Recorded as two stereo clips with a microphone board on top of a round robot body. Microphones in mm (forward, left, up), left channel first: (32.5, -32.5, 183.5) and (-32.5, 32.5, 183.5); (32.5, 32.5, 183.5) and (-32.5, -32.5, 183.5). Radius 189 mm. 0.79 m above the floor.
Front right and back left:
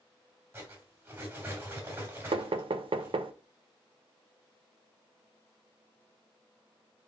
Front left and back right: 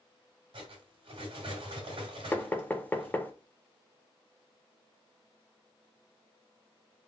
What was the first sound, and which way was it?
Cutlery clinking, 160° right.